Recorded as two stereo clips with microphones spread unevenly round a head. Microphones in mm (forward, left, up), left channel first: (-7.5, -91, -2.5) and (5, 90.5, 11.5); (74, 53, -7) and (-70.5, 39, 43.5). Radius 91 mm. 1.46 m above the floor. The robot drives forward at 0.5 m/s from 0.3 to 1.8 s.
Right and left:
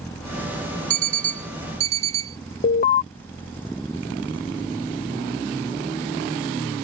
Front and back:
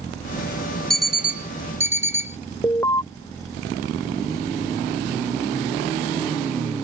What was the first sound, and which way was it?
An alarm clock, 110° left.